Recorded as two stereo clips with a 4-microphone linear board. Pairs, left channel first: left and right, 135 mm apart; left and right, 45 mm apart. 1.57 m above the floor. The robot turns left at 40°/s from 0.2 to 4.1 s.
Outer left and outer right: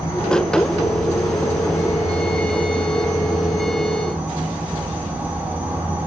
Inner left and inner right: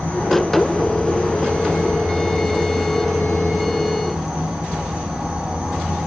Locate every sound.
0.0 s an insect: 20° left (ahead or behind), 1.1 m; by 6.1 s 10° right (ahead or behind), 1.1 m